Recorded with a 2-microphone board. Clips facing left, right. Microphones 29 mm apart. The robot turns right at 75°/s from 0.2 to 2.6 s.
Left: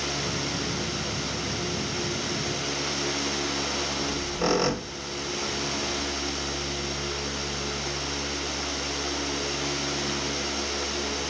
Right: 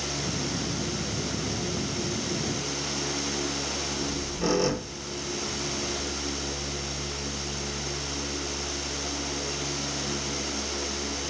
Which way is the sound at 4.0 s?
40° left (ahead or behind).